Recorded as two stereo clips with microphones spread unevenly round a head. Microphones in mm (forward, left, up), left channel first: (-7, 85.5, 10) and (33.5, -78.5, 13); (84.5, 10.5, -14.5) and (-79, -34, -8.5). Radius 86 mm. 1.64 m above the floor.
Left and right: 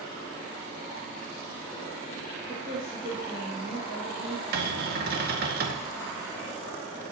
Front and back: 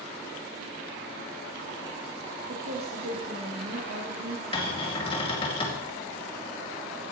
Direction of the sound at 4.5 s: 45° right.